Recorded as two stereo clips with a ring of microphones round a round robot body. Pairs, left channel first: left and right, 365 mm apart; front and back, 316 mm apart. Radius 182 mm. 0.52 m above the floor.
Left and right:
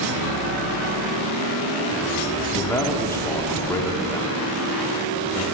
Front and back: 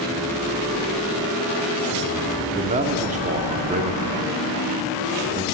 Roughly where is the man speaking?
Behind.